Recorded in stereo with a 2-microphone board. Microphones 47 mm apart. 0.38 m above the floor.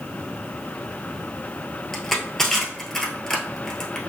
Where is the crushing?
10° left (ahead or behind), 1.1 m.